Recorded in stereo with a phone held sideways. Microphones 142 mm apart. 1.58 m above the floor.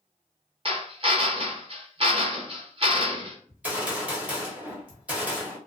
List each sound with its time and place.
0.7 s a drill: 40° right (ahead or behind), 0.7 m
3.5 s a gunshot: 10° right (ahead or behind), 0.9 m